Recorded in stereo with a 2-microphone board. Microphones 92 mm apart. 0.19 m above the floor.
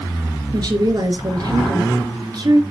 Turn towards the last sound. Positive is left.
turn(degrees=-50)  # may be behind; listen again after turning